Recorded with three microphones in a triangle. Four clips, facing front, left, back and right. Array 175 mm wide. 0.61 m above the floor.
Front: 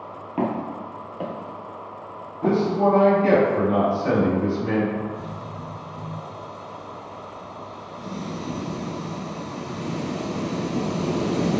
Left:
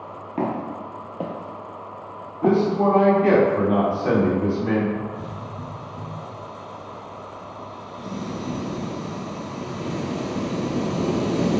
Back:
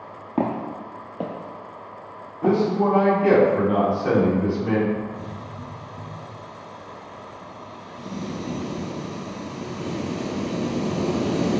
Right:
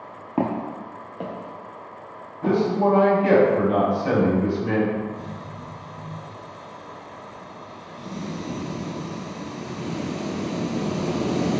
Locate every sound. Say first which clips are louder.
0.4 s footsteps: right 1 dB, back 1 dB; 135° right, 0.7 m; by 2.6 s 95° left, 1.1 m
2.4 s a man speaking: left 2 dB, even; 105° left, 2.0 m
5.0 s a hiss: even, front 1 dB; 100° left, 1.7 m